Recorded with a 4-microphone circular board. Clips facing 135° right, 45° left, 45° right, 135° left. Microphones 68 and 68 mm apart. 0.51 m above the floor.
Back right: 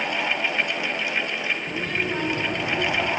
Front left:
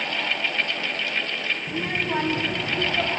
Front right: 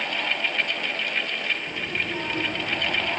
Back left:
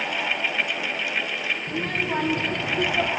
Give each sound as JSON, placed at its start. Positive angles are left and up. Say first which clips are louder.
{"t": 1.7, "sound": "a child speaking", "louder": "even, back left 3 dB", "azimuth_deg": 90, "distance_m": 3.0}